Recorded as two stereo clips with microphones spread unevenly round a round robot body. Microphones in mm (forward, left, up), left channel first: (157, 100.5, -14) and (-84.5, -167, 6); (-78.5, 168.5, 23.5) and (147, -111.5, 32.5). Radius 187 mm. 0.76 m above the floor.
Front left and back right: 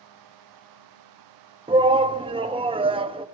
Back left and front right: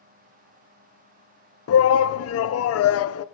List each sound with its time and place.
1.7 s a shout: 155° left, 0.7 m